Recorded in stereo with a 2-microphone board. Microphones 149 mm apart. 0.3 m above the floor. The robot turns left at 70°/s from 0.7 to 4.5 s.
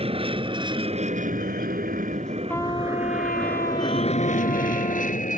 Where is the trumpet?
170° left; by 5.2 s 25° left.